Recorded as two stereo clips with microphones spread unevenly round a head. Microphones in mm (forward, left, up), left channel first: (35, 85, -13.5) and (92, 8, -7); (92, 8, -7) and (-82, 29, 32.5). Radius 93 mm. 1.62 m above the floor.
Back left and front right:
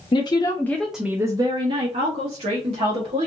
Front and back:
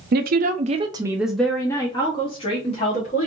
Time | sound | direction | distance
0.1 | a woman speaking | 175° left | 0.6 m